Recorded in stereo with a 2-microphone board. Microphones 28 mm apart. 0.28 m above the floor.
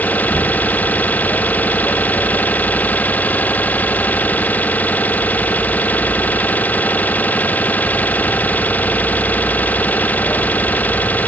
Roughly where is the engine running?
Left.